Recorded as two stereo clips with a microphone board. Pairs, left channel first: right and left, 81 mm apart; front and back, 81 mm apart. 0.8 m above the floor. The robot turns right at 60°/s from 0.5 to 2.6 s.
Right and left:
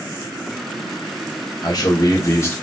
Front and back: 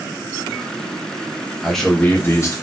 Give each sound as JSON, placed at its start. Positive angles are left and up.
{"t": 1.6, "sound": "a man speaking", "azimuth_deg": -90, "distance_m": 0.8}